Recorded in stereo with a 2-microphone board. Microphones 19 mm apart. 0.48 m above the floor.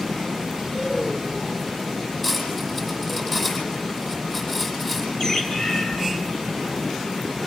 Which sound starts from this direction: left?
A bird, at 5.2 s.